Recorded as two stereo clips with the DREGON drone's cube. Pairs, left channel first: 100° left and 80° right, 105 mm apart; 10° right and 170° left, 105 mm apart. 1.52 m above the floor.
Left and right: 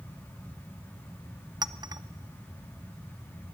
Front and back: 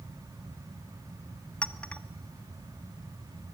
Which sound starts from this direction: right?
A clink, at 1.6 s.